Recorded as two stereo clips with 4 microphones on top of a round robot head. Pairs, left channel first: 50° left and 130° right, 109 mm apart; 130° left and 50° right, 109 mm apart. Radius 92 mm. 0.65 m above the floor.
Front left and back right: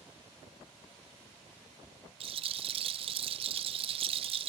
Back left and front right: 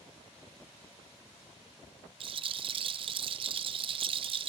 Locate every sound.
2.2 s a rattle: 90° right, 0.6 m